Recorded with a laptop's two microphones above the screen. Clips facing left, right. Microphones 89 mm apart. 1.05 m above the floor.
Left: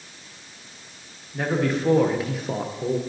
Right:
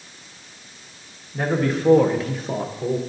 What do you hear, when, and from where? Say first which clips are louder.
1.3 s a man speaking: right 1 dB; 5° right (ahead or behind), 0.9 m; by 3.0 s 5° left (ahead or behind), 0.9 m